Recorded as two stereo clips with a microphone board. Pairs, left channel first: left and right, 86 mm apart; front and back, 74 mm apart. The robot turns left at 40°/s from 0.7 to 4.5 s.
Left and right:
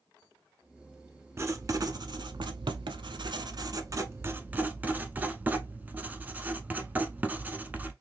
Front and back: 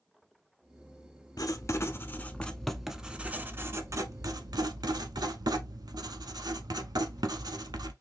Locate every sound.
1.4 s writing: 35° right, 0.6 m; by 7.9 s 160° right, 0.6 m